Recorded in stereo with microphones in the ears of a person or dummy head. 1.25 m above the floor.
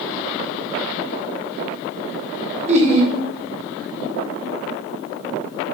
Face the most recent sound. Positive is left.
turn(degrees=-35)  # may be behind; listen again after turning